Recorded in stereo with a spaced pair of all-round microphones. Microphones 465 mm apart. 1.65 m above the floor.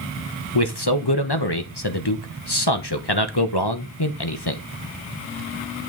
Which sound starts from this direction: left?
A man speaking, at 0.6 s.